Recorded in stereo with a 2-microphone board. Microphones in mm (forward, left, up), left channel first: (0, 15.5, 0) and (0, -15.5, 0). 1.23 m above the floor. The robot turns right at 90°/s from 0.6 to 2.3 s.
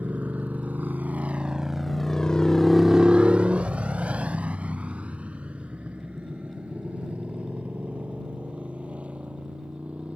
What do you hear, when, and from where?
0.0 s a motorcycle: 65° right (ahead or behind); by 10.2 s 45° right (ahead or behind)